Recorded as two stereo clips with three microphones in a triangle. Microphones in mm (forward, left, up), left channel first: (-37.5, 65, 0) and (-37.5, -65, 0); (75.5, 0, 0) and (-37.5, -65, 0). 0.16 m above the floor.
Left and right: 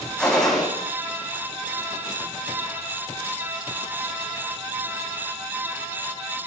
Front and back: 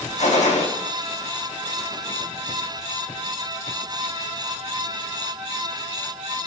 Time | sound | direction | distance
0.2 | a gunshot | 5° left | 3.5 m